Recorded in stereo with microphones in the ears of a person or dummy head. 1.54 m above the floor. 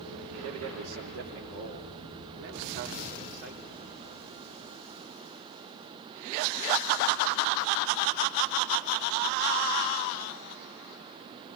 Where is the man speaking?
85° right, 3.5 m; by 4.3 s 45° right (ahead or behind), 5 m.